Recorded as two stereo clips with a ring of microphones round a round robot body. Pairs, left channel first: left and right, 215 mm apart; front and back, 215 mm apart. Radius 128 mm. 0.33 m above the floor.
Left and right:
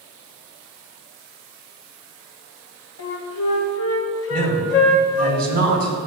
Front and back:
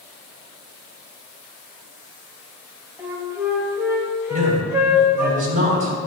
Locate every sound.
3.0 s a flute: 100° left, 1.4 m
4.3 s a man speaking: 130° right, 4 m